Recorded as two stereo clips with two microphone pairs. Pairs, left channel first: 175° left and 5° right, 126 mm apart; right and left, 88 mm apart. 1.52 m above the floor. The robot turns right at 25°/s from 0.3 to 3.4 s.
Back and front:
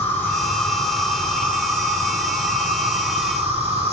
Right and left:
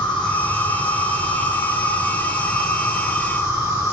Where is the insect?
110° right, 3 m; by 3.9 s 35° right, 3 m.